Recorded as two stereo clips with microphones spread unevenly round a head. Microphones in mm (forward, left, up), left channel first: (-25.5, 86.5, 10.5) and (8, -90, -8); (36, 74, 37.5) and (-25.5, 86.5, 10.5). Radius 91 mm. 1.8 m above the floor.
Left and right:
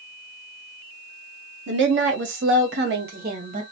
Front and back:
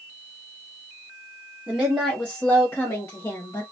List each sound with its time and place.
1.7 s a woman speaking: 95° right, 1.4 m; by 3.6 s 30° right, 1.5 m